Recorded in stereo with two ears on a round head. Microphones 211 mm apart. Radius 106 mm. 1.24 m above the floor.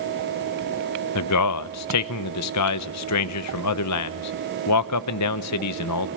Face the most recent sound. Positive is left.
turn(degrees=80)